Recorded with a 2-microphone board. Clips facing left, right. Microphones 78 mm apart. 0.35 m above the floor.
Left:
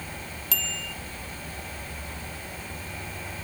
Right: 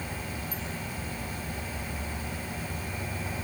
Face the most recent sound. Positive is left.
turn(degrees=85)